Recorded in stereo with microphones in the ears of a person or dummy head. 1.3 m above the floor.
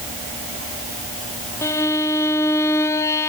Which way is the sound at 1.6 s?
15° left (ahead or behind).